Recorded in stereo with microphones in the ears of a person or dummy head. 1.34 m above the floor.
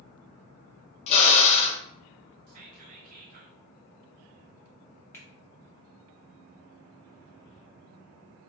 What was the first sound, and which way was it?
A drill, 30° left (ahead or behind).